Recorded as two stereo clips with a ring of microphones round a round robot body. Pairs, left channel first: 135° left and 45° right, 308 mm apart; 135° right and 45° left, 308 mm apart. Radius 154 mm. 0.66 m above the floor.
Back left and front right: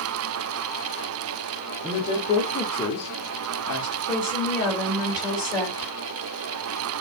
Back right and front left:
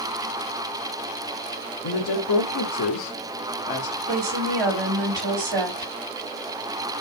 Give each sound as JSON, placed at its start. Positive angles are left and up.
{"t": 1.8, "sound": "a woman speaking", "azimuth_deg": -145, "distance_m": 1.5}
{"t": 4.1, "sound": "a woman speaking", "azimuth_deg": 45, "distance_m": 4.5}